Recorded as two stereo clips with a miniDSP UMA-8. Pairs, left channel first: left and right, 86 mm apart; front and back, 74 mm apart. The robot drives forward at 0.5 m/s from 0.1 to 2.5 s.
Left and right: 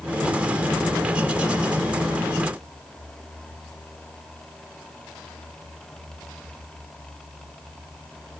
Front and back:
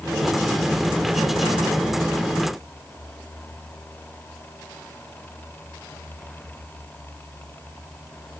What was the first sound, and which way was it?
Only background noise.